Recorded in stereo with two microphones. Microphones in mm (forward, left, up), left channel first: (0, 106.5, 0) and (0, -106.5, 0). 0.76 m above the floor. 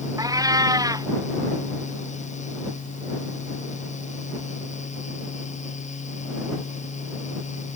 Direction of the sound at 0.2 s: 15° right (ahead or behind).